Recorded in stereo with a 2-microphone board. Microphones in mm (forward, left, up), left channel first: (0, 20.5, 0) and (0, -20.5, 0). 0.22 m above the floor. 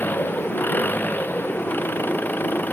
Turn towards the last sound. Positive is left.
turn(degrees=50)  # may be behind; listen again after turning